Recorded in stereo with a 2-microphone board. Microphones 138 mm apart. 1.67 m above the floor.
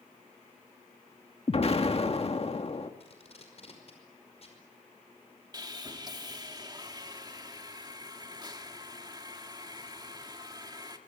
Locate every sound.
1.5 s an explosion: 45° left (ahead or behind), 1.8 m
3.0 s tape being pulled: 50° left (ahead or behind), 5.5 m
5.5 s sawing: 30° right (ahead or behind), 2 m